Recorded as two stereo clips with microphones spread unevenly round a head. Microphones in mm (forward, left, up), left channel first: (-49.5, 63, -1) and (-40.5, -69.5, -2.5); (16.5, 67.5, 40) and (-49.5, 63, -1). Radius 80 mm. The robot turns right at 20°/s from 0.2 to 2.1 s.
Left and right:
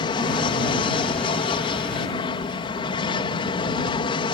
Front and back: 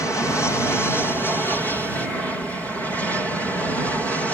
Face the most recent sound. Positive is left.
turn(degrees=105)